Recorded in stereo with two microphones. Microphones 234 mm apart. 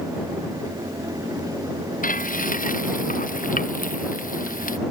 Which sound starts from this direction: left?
Frying, at 2.0 s.